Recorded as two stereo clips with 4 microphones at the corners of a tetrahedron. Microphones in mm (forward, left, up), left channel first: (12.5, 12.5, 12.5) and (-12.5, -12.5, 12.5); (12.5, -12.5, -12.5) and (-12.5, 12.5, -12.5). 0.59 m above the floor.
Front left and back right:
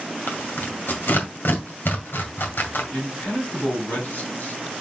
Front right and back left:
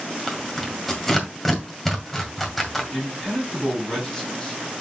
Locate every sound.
0.3 s tearing paper: 40° left, 1.9 m
2.9 s a man speaking: 30° left, 4.5 m